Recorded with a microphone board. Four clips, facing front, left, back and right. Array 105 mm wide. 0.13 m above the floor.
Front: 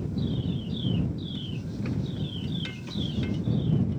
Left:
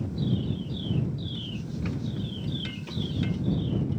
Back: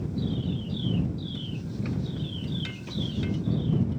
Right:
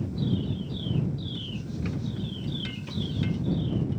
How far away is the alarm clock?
No alarm clock in this recording.